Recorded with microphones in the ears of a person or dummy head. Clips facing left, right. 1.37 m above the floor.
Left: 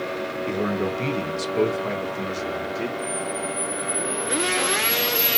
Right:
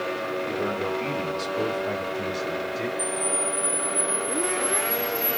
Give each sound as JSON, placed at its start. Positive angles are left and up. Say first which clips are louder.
{"t": 0.5, "sound": "a man speaking", "louder": "left 5 dB", "side_deg": 40, "distance_m": 1.0}
{"t": 3.0, "sound": "a camera shutter", "louder": "even", "side_deg": 5, "distance_m": 0.8}